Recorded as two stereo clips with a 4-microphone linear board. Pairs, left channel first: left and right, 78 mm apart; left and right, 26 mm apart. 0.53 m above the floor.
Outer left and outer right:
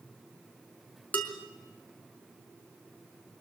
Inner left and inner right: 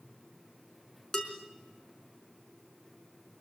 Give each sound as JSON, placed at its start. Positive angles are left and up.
{"t": 1.1, "sound": "dishes clattering", "side_deg": 20, "distance_m": 5.0}